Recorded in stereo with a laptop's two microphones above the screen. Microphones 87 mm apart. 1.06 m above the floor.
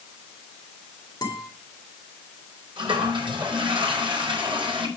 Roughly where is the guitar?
Left.